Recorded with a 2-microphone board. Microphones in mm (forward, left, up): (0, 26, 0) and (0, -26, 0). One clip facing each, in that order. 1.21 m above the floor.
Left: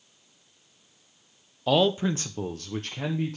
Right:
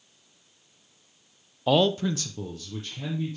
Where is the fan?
I don't hear a fan.